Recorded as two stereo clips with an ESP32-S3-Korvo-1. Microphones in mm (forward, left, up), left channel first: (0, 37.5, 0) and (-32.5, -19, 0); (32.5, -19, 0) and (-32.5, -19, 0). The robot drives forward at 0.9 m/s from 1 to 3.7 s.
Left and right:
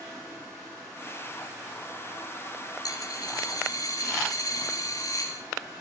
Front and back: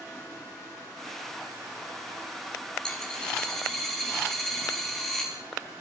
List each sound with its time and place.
2.9 s a dropped coin: 75° left, 5 m; by 5.4 s 85° left, 5 m